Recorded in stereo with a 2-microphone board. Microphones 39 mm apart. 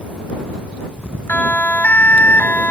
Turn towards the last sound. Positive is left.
turn(degrees=50)  # may be behind; listen again after turning